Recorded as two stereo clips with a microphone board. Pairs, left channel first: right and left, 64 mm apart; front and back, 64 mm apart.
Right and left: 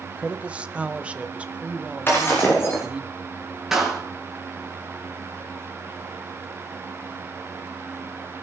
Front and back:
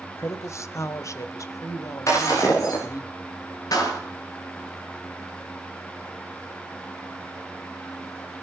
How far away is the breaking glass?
About 8.5 m.